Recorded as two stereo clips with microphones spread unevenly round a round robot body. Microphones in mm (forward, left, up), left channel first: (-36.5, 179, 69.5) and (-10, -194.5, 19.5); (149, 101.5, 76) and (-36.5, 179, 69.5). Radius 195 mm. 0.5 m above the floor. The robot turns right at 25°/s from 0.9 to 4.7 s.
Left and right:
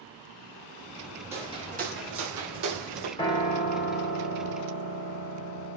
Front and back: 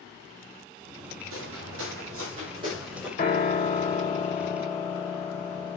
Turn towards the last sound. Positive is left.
turn(degrees=55)